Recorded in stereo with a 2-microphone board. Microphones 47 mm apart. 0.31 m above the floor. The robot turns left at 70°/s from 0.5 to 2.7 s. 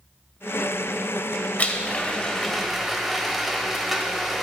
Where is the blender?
75° left, 0.9 m; by 4.4 s 5° right, 0.9 m.